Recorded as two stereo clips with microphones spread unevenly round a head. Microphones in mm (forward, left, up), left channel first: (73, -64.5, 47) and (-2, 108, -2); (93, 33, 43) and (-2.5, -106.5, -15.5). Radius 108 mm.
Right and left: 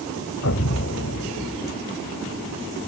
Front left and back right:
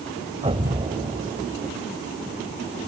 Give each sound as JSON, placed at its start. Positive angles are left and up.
{"t": 0.4, "sound": "an explosion", "azimuth_deg": -65}